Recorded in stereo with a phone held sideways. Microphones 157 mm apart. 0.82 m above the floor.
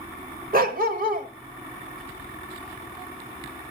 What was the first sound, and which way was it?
A dog barking, 60° right (ahead or behind).